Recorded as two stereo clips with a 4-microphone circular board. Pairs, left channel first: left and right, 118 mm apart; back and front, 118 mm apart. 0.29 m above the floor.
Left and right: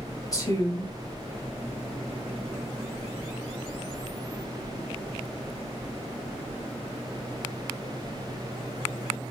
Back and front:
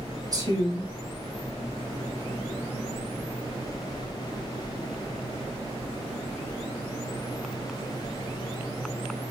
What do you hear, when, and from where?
0.3 s a woman speaking: 45° left, 2 m